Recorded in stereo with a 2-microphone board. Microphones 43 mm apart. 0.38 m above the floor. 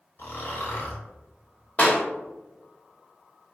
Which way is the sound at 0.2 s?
55° left (ahead or behind).